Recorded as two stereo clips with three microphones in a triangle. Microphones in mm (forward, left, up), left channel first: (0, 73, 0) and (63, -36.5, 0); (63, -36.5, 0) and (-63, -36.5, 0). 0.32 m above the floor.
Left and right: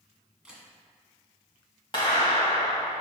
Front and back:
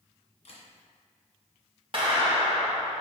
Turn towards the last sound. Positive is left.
turn(degrees=155)